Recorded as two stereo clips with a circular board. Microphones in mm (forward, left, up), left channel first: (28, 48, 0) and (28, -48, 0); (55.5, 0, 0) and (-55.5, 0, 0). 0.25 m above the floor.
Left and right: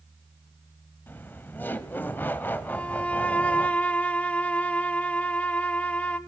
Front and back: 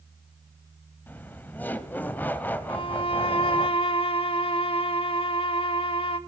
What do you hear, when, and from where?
1.1 s laughter: 50° left, 1.0 m
2.7 s a violin: 15° left, 0.7 m